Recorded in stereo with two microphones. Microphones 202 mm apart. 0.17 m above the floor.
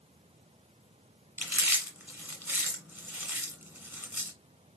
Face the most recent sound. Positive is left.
turn(degrees=-10)  # may be behind; listen again after turning